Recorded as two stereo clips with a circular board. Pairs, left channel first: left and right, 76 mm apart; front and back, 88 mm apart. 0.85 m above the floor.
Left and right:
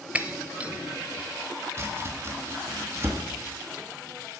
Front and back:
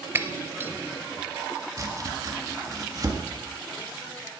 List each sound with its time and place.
0.1 s breaking glass: 145° right, 0.6 m
1.8 s chopping: 140° right, 1.5 m